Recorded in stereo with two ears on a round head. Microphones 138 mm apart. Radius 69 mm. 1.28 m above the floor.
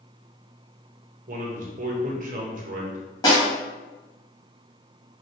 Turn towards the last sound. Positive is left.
turn(degrees=25)  # may be behind; listen again after turning